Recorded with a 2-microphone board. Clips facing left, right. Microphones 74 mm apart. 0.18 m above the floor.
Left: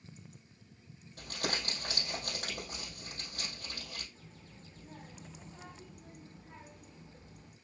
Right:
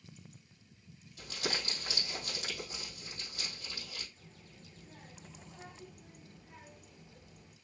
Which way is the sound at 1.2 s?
45° left (ahead or behind).